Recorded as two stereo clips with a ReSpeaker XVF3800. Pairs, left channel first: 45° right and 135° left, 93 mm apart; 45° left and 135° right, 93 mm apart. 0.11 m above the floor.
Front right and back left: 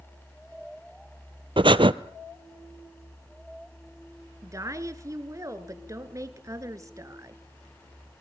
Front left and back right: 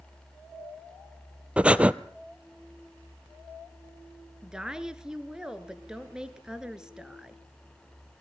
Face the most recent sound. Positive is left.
turn(degrees=150)